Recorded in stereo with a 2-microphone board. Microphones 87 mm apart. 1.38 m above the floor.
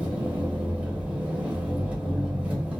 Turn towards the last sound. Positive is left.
turn(degrees=-20)  # may be behind; listen again after turning